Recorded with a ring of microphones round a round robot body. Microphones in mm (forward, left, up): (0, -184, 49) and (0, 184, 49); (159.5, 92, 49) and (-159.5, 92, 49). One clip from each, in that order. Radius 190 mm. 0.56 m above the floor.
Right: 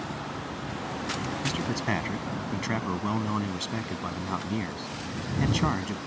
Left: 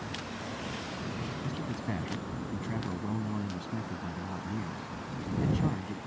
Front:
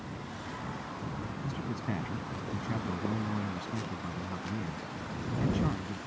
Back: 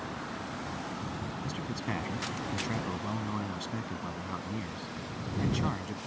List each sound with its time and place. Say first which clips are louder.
1.4 s a man speaking: right 8 dB, back 1 dB; 115° right